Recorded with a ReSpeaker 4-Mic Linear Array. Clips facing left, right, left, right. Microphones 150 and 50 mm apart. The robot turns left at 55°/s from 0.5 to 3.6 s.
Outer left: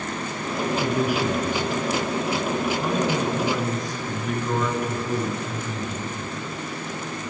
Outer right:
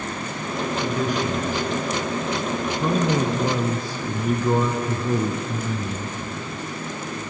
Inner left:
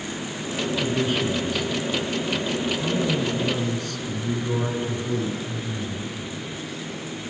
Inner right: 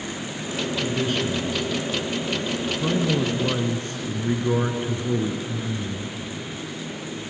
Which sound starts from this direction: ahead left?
A man speaking, at 0.8 s.